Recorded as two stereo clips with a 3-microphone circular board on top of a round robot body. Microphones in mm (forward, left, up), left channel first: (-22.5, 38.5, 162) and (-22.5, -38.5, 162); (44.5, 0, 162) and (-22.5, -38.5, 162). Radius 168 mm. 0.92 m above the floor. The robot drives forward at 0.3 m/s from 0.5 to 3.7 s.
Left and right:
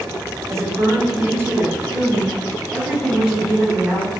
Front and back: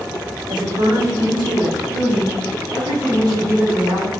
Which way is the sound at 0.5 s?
140° right.